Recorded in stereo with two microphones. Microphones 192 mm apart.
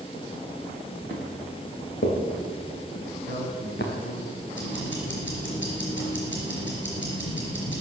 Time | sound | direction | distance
1.1 | footsteps | 80° left | 5.5 m
3.0 | a man speaking | 65° left (ahead or behind) | 4.5 m
4.5 | ticking | 80° left | 4 m